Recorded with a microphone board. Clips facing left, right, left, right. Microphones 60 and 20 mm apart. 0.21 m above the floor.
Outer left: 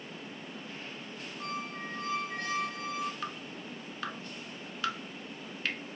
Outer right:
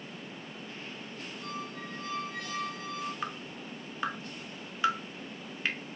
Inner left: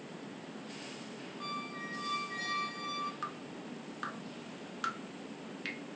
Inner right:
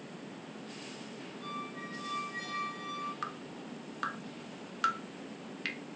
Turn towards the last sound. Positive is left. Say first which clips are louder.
# outer right 1 dB, inner right 1 dB
turn(degrees=-20)  # may be behind; listen again after turning